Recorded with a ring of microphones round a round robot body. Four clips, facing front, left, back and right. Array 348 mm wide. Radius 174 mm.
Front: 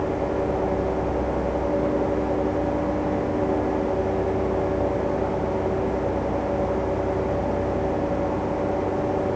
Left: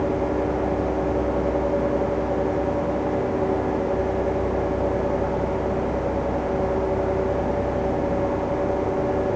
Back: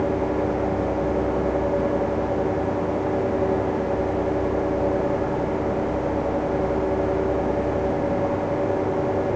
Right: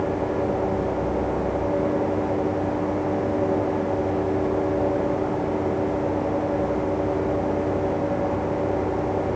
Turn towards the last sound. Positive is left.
No sound to turn to.